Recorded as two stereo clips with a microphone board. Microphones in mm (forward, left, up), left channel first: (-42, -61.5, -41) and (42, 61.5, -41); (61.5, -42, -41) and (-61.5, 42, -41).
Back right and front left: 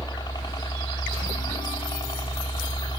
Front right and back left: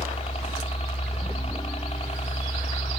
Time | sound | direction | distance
0.0 | a helicopter | 70° right | ?